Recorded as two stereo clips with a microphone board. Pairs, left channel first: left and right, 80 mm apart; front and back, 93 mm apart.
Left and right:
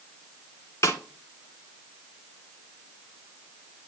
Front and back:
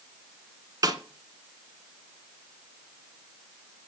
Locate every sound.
0.8 s a snare drum: 135° left, 1.7 m